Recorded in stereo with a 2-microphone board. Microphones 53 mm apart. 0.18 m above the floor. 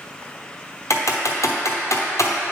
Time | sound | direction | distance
0.9 | typing on a keyboard | 80° left | 0.9 m